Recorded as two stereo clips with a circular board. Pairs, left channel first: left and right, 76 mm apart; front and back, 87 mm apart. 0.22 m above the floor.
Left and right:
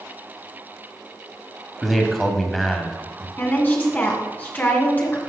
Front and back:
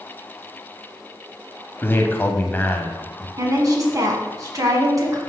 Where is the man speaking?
5° left, 1.1 m.